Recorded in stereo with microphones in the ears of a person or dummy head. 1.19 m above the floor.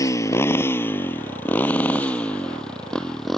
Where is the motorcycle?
20° left (ahead or behind); by 3.4 s 5° left (ahead or behind).